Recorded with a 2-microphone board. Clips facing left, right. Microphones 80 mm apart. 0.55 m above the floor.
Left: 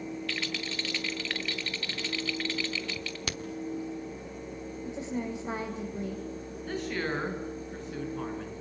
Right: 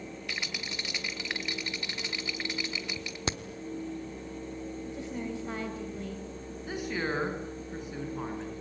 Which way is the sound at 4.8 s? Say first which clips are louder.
Left 5 dB; 20° left (ahead or behind).